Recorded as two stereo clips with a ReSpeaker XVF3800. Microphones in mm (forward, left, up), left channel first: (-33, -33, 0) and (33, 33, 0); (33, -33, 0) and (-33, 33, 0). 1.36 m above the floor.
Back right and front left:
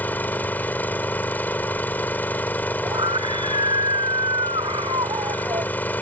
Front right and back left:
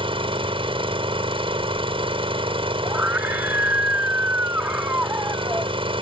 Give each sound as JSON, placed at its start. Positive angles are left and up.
{"t": 0.0, "sound": "an engine running", "azimuth_deg": 155}
{"t": 2.9, "sound": "a scream", "azimuth_deg": 65}